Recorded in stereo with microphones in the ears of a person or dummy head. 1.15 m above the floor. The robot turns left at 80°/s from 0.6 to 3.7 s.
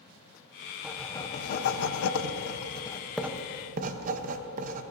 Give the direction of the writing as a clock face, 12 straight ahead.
6 o'clock.